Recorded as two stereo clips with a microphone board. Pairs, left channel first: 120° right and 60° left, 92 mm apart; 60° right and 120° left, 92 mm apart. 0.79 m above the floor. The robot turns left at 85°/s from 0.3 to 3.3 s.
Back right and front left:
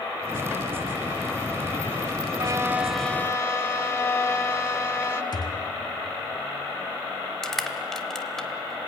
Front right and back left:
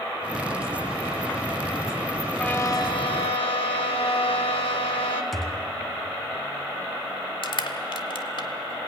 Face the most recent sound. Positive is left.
turn(degrees=-35)